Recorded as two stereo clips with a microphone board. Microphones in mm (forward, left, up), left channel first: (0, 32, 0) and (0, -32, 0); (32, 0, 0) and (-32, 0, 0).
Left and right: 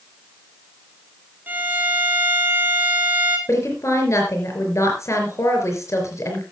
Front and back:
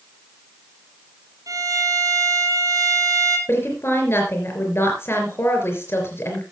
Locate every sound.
1.5 s a violin: 155° right, 1.9 m
3.5 s a woman speaking: 50° left, 4 m